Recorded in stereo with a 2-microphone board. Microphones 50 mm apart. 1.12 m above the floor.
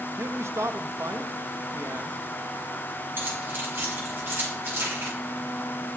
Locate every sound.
0.2 s a man speaking: 70° right (ahead or behind), 1.2 m
3.2 s keys jangling: 45° right (ahead or behind), 7.5 m